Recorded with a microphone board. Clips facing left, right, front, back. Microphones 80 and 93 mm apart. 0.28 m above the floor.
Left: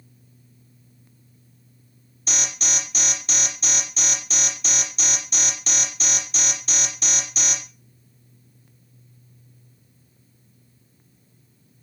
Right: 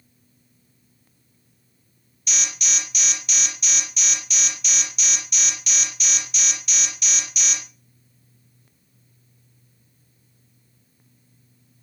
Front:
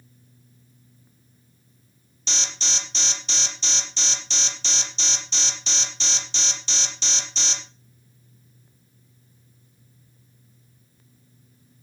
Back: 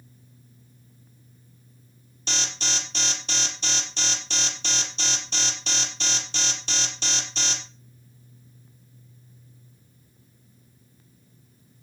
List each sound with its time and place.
2.3 s an alarm: 140° left, 5 m